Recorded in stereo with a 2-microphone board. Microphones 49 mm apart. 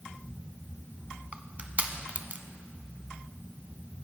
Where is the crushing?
35° right (ahead or behind), 0.6 m.